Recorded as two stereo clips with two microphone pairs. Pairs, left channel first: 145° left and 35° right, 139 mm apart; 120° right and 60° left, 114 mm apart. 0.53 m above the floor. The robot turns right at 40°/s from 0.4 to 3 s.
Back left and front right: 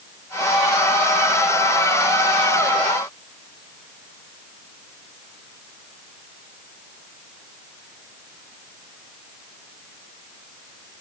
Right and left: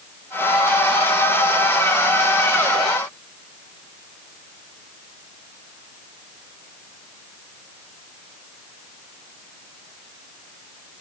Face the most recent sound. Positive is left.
No sound to turn to.